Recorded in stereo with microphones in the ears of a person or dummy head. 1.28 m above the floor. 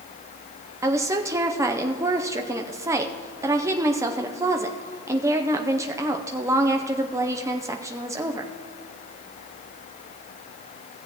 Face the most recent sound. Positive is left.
turn(degrees=-15)  # may be behind; listen again after turning